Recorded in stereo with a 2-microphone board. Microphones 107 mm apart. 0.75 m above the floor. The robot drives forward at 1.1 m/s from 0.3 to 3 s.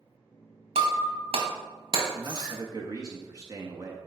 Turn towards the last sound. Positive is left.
turn(degrees=-35)  # may be behind; listen again after turning